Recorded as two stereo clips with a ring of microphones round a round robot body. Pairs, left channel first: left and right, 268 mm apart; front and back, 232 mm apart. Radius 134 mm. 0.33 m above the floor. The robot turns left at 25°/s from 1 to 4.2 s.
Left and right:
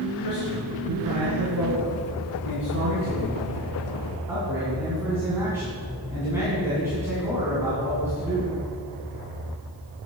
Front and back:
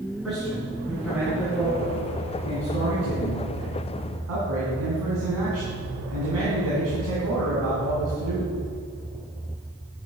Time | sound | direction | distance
0.2 | a man speaking | 90° right | 2.5 m